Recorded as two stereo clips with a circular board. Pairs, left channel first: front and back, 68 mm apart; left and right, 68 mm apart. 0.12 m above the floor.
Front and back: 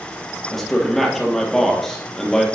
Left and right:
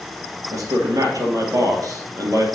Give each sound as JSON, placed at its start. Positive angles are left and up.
{"t": 0.5, "sound": "a man speaking", "azimuth_deg": -85, "distance_m": 3.0}